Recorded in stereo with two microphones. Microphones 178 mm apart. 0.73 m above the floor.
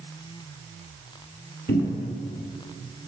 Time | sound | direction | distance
1.7 | a cupboard door | 75° left (ahead or behind) | 1.2 m